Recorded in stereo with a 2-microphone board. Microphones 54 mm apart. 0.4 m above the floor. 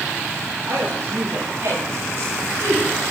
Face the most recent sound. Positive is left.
turn(degrees=-70)  # may be behind; listen again after turning